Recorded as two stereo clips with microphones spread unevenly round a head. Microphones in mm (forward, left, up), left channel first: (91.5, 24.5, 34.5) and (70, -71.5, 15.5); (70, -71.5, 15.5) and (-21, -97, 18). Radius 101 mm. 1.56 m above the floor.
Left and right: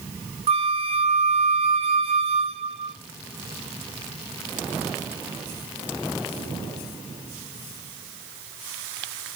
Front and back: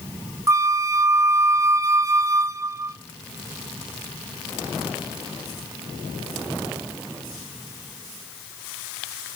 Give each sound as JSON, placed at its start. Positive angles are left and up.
{"t": 0.5, "sound": "a flute", "azimuth_deg": -105, "distance_m": 1.0}